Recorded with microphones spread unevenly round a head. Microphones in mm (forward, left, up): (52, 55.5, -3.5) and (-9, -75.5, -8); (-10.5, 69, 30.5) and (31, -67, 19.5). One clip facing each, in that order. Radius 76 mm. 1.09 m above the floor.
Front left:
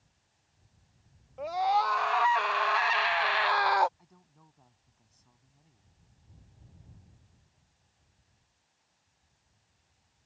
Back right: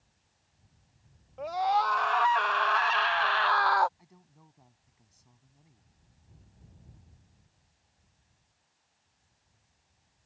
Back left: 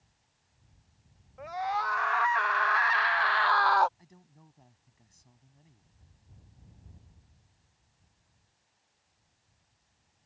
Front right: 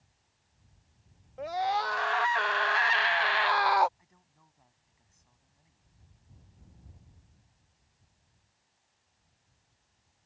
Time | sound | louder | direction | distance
1.4 | a scream | even, front right 3 dB | 20° right | ?
4.0 | a man speaking | back right 2 dB, back left 8 dB | 160° left | ?